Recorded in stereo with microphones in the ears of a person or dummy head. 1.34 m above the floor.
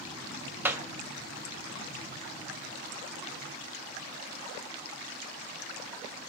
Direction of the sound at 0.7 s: 10° right (ahead or behind).